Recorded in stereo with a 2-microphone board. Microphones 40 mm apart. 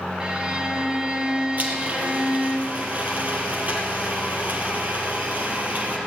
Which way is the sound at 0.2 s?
25° right (ahead or behind).